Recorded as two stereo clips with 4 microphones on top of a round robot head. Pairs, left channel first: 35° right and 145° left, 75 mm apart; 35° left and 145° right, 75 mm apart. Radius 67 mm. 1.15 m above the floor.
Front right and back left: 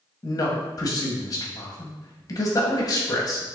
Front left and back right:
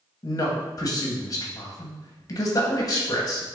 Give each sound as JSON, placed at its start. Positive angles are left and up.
{"t": 0.2, "sound": "a man speaking", "azimuth_deg": 0, "distance_m": 1.1}